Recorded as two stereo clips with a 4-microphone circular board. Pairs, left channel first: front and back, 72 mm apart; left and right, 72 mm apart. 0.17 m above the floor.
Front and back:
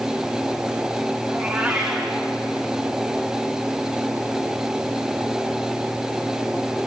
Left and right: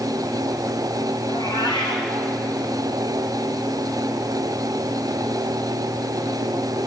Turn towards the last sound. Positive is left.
turn(degrees=95)